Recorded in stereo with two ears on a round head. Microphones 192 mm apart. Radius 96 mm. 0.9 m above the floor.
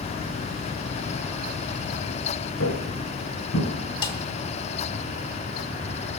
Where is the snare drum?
25° left (ahead or behind), 1.9 m.